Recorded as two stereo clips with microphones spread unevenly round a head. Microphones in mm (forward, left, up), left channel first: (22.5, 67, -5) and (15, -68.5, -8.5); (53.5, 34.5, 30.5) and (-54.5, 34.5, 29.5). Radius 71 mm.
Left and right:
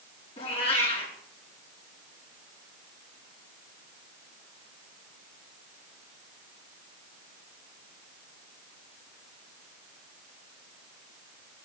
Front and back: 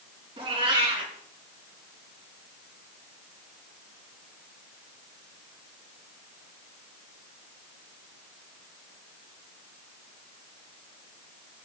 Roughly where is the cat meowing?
Behind left.